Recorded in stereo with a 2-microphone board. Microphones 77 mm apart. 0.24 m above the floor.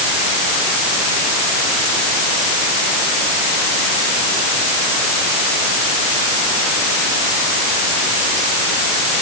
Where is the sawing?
No sawing in this recording.